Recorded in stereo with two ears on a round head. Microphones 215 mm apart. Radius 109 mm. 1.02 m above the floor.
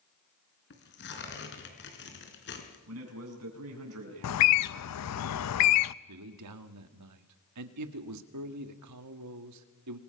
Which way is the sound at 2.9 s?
70° right (ahead or behind).